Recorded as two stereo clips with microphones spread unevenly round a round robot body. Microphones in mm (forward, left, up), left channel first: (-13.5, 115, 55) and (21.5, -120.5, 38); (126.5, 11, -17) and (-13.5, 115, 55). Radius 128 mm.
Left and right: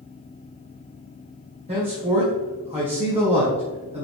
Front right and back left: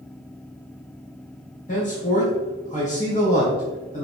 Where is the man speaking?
20° right, 2 m.